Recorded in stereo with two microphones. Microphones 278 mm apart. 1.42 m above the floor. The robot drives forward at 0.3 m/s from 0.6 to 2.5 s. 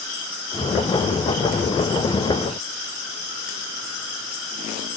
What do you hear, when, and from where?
Only background noise.